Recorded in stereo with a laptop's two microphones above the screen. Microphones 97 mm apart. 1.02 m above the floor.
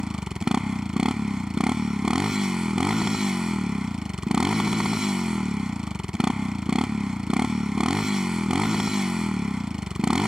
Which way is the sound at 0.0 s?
5° right (ahead or behind).